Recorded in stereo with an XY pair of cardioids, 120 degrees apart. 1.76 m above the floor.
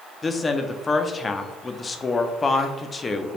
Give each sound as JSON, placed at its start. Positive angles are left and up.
{"t": 0.2, "sound": "a woman speaking", "azimuth_deg": 25, "distance_m": 0.6}